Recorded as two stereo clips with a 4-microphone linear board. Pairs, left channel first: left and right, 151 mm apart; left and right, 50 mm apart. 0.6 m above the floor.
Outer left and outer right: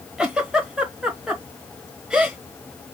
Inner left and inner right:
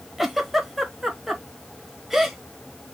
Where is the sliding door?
No sliding door in this recording.